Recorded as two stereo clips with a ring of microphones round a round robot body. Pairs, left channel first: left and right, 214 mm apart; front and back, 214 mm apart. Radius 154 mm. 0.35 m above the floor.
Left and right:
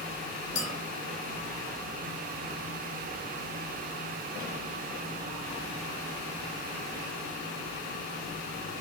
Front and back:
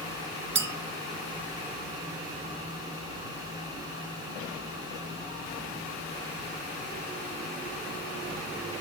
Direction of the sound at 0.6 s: 160° left.